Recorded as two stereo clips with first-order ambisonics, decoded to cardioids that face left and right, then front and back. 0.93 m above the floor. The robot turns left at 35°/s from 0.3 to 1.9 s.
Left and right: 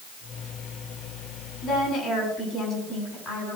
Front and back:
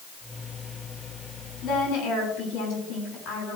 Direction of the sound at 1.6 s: 40° left.